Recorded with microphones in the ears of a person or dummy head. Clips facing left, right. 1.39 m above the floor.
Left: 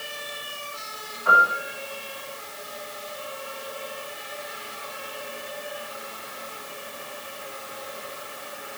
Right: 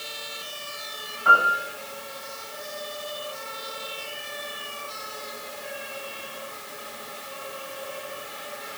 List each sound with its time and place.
1.2 s a piano: 50° right (ahead or behind), 1.5 m